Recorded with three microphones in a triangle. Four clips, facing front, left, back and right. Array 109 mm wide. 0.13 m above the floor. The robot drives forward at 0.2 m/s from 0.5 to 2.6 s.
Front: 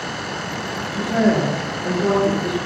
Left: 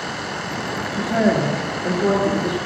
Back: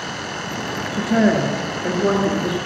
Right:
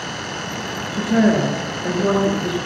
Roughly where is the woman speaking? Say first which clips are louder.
Right 2 dB, back 1 dB; behind right.